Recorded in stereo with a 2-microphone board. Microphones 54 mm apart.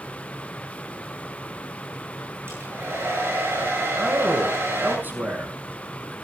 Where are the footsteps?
No footsteps in this recording.